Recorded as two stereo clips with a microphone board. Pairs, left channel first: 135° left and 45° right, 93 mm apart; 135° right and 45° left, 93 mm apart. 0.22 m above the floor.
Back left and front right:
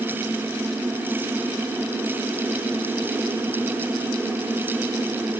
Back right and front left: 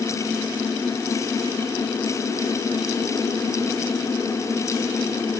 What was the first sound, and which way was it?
Only background noise.